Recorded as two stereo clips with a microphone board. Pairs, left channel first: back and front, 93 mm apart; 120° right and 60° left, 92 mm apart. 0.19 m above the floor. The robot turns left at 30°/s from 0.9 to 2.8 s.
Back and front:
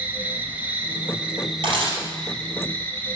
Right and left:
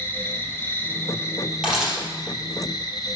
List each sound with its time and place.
0.0 s an insect: 65° right, 0.8 m; by 3.2 s 120° right, 0.8 m
1.6 s a camera shutter: 20° right, 3 m; by 2.0 s 30° right, 3 m